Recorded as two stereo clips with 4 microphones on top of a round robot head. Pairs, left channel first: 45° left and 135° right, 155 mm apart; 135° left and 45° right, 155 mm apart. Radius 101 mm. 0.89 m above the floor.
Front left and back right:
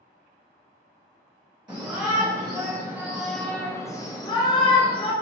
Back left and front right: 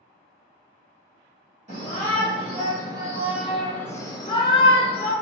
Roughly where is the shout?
Right.